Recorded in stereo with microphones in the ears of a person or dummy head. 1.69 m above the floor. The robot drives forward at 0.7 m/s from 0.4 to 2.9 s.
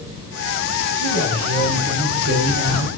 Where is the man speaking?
75° right (ahead or behind), 2 m; by 2.9 s 60° right (ahead or behind), 2.5 m.